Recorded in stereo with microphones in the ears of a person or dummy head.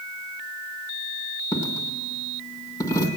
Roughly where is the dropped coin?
Centre.